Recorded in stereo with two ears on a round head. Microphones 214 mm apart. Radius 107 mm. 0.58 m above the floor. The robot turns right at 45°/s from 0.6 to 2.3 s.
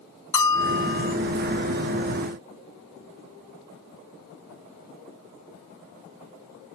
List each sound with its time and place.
0.3 s a bell: 15° left (ahead or behind); by 1.1 s 30° left (ahead or behind)